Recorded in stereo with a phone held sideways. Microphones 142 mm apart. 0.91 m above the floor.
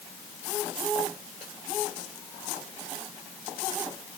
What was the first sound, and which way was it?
Only background noise.